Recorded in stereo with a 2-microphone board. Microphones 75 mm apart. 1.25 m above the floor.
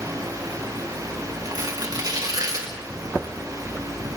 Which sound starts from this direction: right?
Tearing paper, at 1.4 s.